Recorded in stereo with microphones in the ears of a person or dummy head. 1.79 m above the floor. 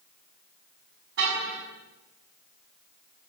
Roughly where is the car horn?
Right.